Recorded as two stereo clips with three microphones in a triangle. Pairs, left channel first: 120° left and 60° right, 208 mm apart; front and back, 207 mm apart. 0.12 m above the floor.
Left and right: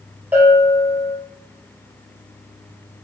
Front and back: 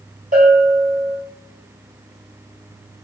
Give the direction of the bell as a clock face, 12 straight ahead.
5 o'clock.